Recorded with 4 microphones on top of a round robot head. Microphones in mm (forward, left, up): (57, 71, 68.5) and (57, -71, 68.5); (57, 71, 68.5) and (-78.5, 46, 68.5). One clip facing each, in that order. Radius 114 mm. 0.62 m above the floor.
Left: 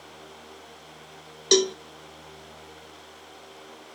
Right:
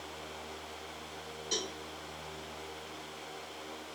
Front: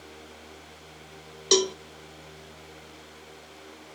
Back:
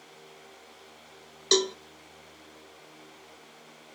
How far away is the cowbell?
About 0.5 m.